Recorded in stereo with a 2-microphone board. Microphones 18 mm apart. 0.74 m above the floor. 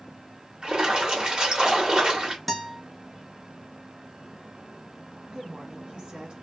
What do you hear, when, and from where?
0.6 s a splash: 45° right (ahead or behind), 1.4 m
2.5 s a guitar: 5° left (ahead or behind), 0.7 m
5.3 s a woman speaking: 60° right (ahead or behind), 1.7 m